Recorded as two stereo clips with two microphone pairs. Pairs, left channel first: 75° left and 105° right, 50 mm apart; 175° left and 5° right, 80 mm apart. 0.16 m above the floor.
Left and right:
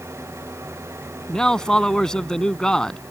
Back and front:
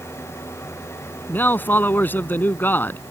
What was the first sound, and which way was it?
An engine running, 130° right.